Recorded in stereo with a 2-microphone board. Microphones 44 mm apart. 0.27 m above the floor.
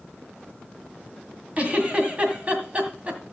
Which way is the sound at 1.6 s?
35° right (ahead or behind).